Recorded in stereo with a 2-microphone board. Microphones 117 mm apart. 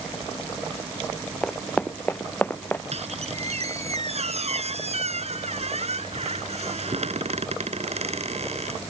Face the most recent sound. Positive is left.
turn(degrees=-65)  # may be behind; listen again after turning